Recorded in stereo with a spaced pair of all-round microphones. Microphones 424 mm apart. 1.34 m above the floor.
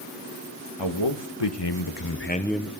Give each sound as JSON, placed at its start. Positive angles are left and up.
{"t": 0.8, "sound": "a man speaking", "side_deg": 80, "distance_m": 2.0}